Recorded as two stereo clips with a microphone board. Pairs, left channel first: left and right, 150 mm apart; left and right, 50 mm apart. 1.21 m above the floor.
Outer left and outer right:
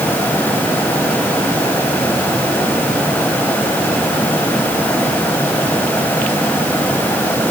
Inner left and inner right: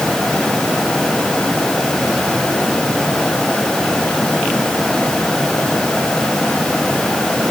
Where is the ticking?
I don't hear ticking.